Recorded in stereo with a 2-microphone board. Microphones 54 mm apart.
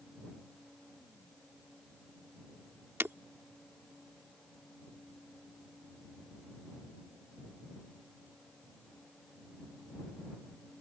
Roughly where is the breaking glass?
Right.